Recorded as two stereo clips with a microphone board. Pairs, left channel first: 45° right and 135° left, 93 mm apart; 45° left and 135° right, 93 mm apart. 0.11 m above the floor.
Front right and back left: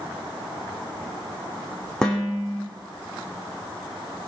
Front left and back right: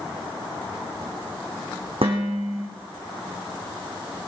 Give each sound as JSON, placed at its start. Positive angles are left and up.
{"t": 2.0, "sound": "dishes clattering", "azimuth_deg": -130, "distance_m": 4.0}